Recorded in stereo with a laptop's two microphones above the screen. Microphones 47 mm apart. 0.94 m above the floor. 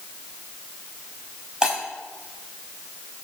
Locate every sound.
1.6 s breaking glass: 20° right (ahead or behind), 4 m